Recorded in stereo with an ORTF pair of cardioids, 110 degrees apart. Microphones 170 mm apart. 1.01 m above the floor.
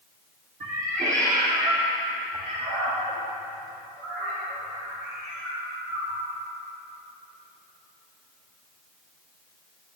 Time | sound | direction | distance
0.6 | a cat meowing | 40° right | 3.5 m